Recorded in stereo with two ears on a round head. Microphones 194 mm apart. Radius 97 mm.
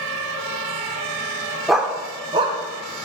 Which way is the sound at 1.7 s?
Centre (ahead or behind).